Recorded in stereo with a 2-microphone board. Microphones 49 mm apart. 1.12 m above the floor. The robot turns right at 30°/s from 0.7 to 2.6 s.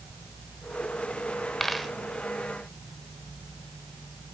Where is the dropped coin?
5° left (ahead or behind), 1.2 m; by 1.9 s centre (ahead or behind), 1.2 m.